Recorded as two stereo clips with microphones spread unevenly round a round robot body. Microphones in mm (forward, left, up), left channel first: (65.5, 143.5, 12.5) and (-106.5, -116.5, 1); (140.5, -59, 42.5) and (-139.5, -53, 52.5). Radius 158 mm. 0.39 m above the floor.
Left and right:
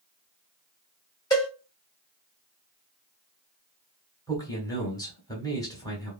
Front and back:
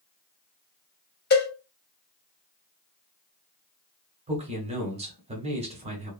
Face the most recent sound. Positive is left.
turn(degrees=130)